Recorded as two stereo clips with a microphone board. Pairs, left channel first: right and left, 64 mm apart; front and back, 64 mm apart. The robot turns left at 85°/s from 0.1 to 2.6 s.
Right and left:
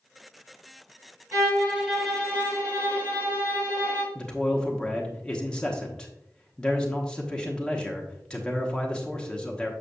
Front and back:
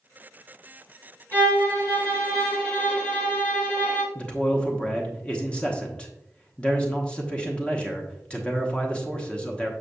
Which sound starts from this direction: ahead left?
A violin, at 1.3 s.